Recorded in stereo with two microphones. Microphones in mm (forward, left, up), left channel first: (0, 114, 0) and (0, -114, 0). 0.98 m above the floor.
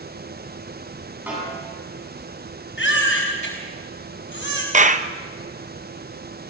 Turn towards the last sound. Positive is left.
turn(degrees=-35)  # may be behind; listen again after turning